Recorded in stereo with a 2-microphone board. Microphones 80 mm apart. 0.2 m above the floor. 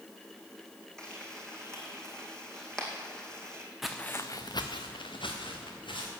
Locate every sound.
1.0 s frying: 10° left (ahead or behind), 2 m
3.8 s footsteps: 5° right (ahead or behind), 0.9 m; by 6.1 s 85° left, 3.5 m